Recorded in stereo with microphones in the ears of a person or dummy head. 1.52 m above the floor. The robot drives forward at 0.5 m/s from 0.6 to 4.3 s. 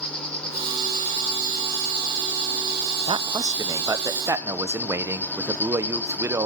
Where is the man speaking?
25° right (ahead or behind), 0.6 m; by 6.5 s 10° right (ahead or behind), 1.2 m.